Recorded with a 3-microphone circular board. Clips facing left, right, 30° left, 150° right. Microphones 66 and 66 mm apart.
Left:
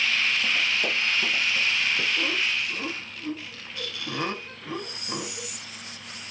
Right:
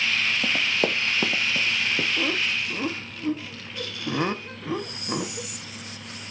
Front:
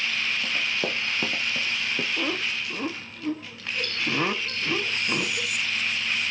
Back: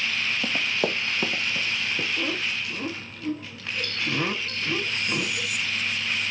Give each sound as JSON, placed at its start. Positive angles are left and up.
{"t": 0.4, "sound": "running footsteps", "azimuth_deg": -105, "distance_m": 1.1}
{"t": 2.2, "sound": "laughter", "azimuth_deg": -35, "distance_m": 0.6}